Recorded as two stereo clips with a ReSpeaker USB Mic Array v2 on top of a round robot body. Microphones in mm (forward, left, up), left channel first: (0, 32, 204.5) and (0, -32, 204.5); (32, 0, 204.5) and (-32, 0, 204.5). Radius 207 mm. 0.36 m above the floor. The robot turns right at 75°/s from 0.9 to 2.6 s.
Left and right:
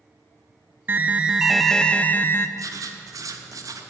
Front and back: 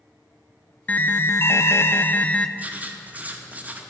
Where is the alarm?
50° right, 0.5 m; by 2.5 s 70° left, 0.5 m.